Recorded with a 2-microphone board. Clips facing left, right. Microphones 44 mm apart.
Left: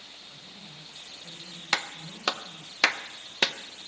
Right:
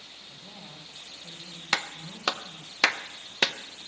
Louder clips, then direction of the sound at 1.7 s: Even; 5° right (ahead or behind).